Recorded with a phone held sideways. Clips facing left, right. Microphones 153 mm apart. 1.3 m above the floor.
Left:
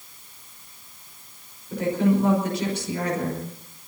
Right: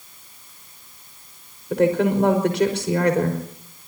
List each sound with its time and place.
1.7 s a woman speaking: 80° right, 5.5 m